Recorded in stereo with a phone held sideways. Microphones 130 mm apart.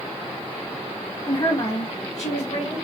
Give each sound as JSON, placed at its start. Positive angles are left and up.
{"t": 1.3, "sound": "a woman speaking", "side_deg": 35, "distance_m": 1.3}